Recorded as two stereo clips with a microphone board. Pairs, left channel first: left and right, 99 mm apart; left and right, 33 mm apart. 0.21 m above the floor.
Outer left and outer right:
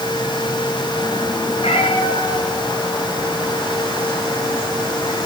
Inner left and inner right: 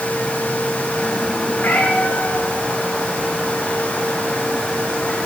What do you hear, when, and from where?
1.6 s a cat meowing: 85° left, 7 m